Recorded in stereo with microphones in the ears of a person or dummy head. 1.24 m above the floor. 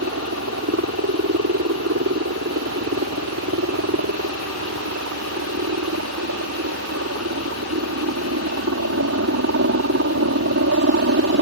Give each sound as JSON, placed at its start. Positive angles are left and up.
{"t": 0.0, "sound": "a helicopter", "side_deg": -55}